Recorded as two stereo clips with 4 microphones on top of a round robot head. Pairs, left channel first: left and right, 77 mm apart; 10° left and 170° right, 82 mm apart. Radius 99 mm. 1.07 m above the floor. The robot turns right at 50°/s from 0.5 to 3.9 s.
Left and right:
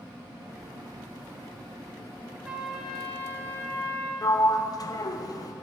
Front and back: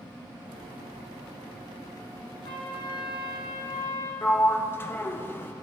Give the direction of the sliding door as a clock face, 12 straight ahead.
10 o'clock.